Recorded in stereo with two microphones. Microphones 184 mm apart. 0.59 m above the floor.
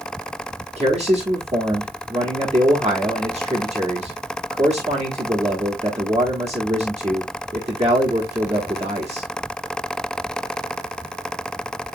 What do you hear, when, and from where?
0.8 s a man speaking: 40° right (ahead or behind), 1.1 m